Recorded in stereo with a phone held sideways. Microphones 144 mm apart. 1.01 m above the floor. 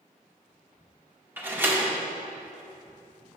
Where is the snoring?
I don't hear snoring.